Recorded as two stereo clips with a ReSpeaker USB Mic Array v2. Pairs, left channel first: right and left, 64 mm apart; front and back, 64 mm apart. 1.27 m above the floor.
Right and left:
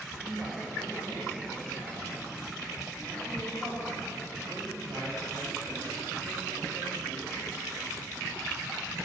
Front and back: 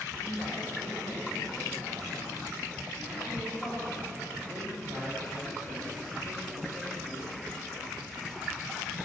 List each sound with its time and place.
0.1 s a man speaking: 150° left, 2.5 m